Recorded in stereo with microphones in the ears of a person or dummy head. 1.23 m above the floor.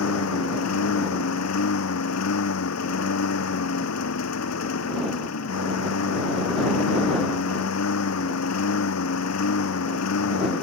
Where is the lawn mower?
85° left.